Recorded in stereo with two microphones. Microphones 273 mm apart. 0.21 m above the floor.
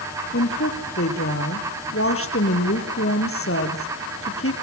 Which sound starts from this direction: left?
A woman speaking, at 0.3 s.